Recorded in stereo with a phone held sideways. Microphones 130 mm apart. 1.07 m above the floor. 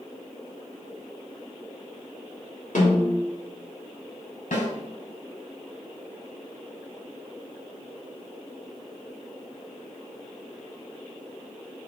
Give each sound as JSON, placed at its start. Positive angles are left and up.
{"t": 2.8, "sound": "a snare drum", "side_deg": 80, "distance_m": 3.0}
{"t": 4.5, "sound": "a snare drum", "side_deg": 80, "distance_m": 3.5}